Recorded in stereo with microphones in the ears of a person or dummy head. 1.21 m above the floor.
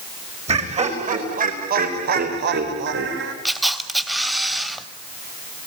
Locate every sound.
0.5 s laughter: 35° right (ahead or behind), 5 m; by 3.4 s 65° right (ahead or behind), 4 m
3.5 s a camera shutter: centre (ahead or behind), 2.0 m